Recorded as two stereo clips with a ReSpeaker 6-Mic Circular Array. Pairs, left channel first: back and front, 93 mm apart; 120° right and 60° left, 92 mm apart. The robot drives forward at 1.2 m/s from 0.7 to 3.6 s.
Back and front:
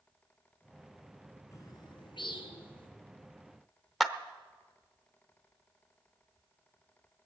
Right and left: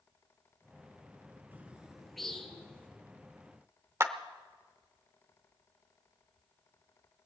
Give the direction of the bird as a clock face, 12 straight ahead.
8 o'clock.